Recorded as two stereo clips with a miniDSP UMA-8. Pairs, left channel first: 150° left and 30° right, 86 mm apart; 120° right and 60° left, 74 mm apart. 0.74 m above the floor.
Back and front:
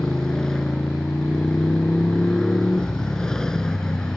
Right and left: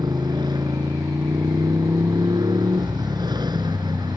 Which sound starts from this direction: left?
A motorcycle, at 0.0 s.